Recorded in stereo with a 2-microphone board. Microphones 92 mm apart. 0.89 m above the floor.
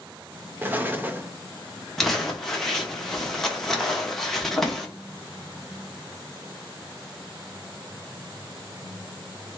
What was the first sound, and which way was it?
An explosion, 20° right (ahead or behind).